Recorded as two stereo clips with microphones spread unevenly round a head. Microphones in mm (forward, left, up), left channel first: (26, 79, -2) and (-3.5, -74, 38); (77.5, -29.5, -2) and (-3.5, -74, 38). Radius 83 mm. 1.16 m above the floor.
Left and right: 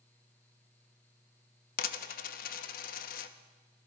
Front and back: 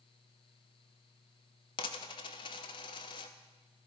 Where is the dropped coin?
90° left, 0.5 m.